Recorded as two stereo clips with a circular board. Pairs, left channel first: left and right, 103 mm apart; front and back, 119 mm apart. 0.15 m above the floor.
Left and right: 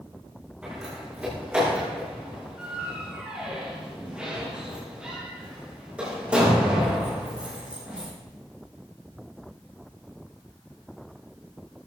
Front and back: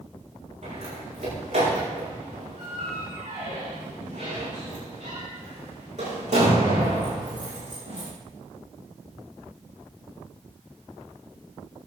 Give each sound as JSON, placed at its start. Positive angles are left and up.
{"t": 0.6, "sound": "a door slam", "azimuth_deg": -170, "distance_m": 6.5}